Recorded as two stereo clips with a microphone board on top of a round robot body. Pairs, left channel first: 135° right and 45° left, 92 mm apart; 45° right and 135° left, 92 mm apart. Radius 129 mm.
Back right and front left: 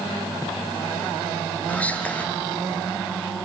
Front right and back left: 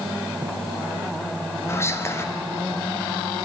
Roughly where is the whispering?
Right.